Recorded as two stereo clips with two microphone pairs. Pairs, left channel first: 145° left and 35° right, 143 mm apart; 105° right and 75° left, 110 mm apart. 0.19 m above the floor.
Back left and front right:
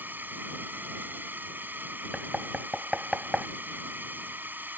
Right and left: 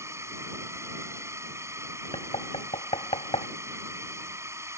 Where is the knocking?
120° right.